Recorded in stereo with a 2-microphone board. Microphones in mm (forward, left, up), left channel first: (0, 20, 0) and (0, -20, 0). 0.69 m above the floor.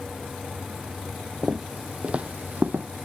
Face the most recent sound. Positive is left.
turn(degrees=-50)  # may be behind; listen again after turning